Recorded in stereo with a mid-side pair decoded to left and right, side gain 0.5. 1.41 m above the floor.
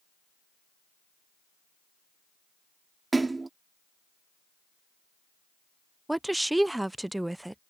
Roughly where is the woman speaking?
Ahead.